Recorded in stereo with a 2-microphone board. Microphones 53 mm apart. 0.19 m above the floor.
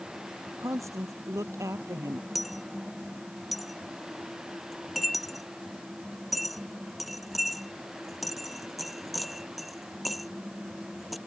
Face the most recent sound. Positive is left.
turn(degrees=0)  # may be behind; listen again after turning